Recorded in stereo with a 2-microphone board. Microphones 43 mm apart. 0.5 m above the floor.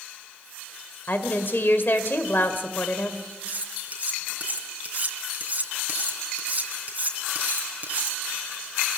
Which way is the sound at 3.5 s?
40° right (ahead or behind).